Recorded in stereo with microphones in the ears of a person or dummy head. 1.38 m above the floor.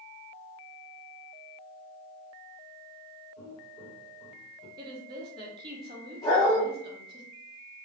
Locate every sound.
3.4 s footsteps: 25° left (ahead or behind), 1.9 m; by 4.7 s 5° left (ahead or behind), 2.5 m
4.8 s a woman speaking: 25° right (ahead or behind), 1.1 m
6.2 s a dog barking: 25° left (ahead or behind), 1.1 m